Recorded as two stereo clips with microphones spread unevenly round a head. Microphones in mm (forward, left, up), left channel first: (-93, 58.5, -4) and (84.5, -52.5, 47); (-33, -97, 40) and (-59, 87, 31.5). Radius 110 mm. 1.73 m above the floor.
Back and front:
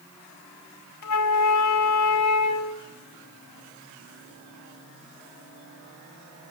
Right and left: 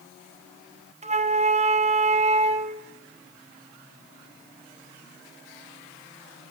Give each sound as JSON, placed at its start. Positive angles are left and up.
{"t": 1.0, "sound": "a flute", "azimuth_deg": 155, "distance_m": 1.1}